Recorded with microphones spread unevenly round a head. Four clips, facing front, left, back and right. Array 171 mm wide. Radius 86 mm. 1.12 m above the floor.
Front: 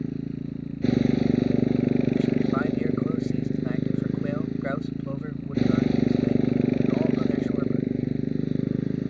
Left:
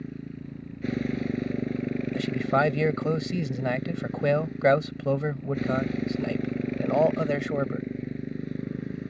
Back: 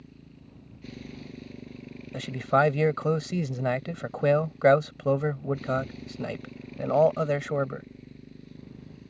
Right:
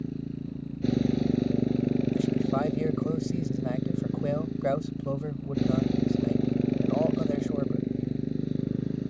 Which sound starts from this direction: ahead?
A motorcycle, at 0.0 s.